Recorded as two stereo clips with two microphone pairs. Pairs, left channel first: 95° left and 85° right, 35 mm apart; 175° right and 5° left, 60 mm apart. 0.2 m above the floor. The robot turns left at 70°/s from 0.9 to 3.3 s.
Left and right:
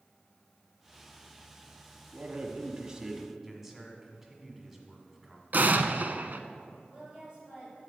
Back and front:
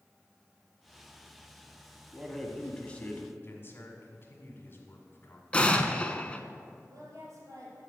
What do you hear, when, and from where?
2.1 s a man speaking: 75° right, 1.2 m; by 3.3 s 160° right, 1.2 m
3.4 s a man speaking: 160° right, 1.6 m
5.5 s an explosion: 110° right, 0.6 m
6.9 s a woman speaking: 20° right, 4 m